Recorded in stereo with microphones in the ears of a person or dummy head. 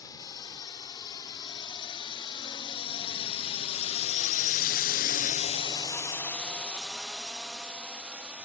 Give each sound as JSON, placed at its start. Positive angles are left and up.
{"t": 0.0, "sound": "a drone", "side_deg": 25}